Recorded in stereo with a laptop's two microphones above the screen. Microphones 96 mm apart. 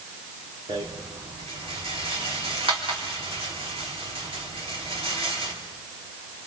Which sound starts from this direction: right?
A rattle, at 0.7 s.